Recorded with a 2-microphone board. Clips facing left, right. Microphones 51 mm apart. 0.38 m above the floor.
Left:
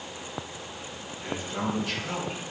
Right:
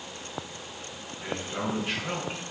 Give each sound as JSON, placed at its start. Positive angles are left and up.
{"t": 1.2, "sound": "a man speaking", "side_deg": -15, "distance_m": 4.5}